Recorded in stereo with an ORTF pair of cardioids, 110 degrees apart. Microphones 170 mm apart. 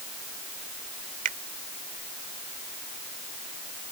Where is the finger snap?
55° right.